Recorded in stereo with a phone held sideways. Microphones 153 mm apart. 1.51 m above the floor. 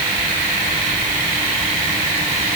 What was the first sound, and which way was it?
Only background noise.